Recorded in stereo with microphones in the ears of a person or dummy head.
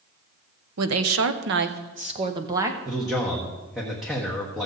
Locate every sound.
0.8 s a woman speaking: 80° right, 1.0 m; by 2.8 s 15° right (ahead or behind), 1.1 m
2.9 s a man speaking: 5° right (ahead or behind), 1.3 m